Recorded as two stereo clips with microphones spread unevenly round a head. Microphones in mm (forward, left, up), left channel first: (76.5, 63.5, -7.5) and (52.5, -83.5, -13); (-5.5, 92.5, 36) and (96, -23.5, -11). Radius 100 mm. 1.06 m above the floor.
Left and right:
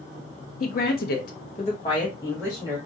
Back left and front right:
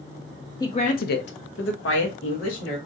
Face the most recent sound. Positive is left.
turn(degrees=160)